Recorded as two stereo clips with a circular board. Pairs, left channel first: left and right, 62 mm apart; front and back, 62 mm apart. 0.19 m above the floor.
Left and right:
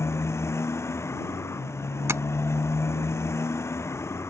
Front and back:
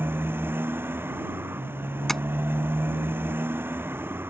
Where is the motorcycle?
130° left.